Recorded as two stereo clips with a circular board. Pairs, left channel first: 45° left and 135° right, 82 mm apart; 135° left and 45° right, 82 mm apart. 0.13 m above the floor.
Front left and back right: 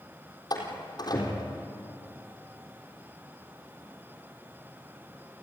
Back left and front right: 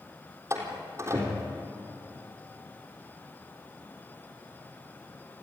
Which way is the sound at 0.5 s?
10° left.